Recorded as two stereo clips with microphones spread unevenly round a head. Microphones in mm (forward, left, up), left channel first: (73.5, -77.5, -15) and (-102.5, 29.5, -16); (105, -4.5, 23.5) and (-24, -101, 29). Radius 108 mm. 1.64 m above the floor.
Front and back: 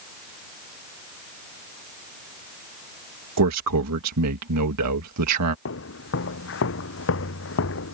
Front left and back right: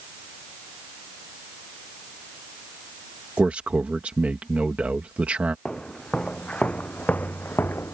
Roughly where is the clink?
I don't hear a clink.